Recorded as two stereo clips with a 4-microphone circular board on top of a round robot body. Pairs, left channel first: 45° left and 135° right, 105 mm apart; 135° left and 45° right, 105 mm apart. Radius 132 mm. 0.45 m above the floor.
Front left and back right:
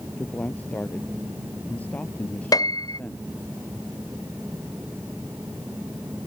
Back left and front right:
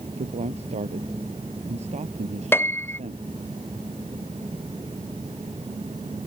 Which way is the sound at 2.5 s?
75° left.